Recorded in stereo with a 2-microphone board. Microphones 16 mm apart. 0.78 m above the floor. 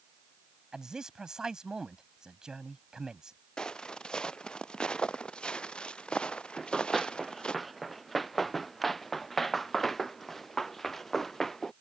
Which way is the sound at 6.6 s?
Centre (ahead or behind).